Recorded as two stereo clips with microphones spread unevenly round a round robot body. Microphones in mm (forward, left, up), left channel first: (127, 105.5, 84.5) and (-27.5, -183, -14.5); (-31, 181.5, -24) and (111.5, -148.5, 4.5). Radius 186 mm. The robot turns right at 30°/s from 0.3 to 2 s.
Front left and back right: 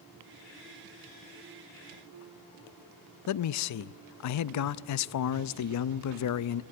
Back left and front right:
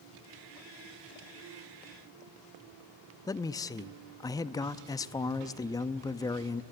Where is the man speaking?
50° left, 0.5 m.